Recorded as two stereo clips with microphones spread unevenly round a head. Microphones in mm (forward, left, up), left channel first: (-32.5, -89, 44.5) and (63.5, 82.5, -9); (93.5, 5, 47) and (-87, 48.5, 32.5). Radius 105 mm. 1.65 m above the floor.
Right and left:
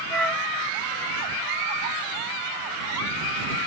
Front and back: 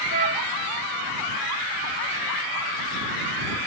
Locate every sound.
0.1 s a flute: 175° right